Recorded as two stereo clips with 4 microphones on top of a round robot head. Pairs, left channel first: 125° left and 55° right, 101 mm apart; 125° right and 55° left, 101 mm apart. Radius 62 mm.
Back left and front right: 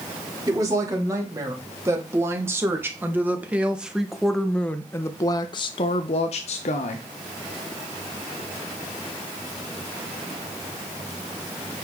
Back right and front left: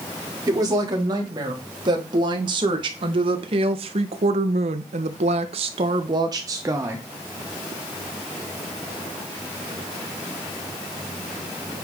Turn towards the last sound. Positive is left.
turn(degrees=125)